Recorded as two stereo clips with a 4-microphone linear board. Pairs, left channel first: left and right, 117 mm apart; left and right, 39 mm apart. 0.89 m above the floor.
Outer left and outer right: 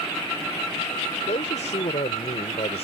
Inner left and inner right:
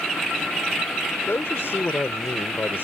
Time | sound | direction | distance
1.3 | a man speaking | 80° left | ?